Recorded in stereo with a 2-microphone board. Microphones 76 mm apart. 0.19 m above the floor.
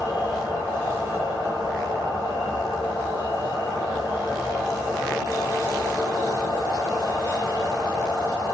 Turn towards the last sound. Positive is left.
turn(degrees=80)